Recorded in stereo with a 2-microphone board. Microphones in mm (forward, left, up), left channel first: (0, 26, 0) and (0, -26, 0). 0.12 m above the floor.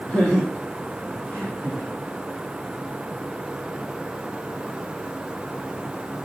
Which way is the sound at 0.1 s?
20° left (ahead or behind).